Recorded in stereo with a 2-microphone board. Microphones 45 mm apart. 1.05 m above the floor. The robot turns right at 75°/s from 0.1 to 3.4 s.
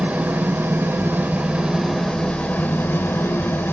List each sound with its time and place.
0.0 s an engine running: 140° right, 1.3 m; by 3.7 s 105° left, 1.3 m